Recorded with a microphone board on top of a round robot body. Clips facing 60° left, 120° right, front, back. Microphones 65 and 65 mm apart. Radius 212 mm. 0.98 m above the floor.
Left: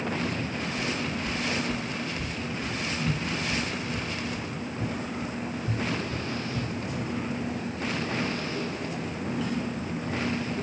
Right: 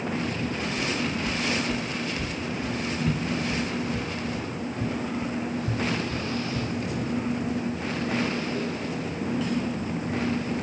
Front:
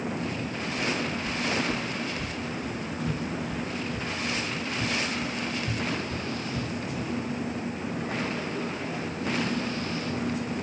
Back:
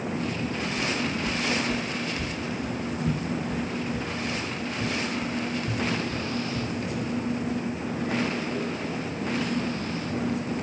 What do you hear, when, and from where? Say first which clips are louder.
0.8 s footsteps: right 3 dB, even; 175° left, 1.9 m; by 7.1 s 70° right, 3 m